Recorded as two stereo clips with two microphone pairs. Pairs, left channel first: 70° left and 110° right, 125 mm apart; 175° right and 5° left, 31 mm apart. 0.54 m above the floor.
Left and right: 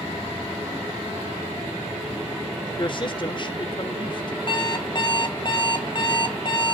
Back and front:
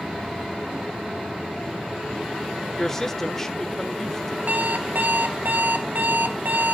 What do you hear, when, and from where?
2.8 s a woman speaking: 110° left, 1.4 m
4.5 s an alarm clock: 20° left, 1.7 m